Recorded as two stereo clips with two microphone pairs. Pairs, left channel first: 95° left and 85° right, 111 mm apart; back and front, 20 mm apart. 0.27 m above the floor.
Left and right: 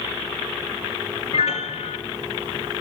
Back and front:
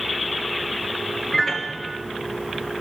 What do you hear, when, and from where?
1.3 s a piano: 105° left, 0.7 m